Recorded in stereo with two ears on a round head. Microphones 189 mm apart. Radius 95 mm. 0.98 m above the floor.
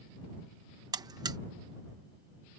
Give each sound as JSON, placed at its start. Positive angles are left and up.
{"t": 0.9, "sound": "a buzzer", "side_deg": -20}